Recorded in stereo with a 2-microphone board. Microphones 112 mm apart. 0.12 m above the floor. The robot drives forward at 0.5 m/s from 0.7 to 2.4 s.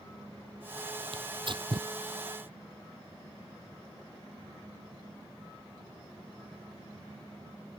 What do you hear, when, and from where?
1.1 s tearing paper: 60° right (ahead or behind); by 1.9 s 45° right (ahead or behind)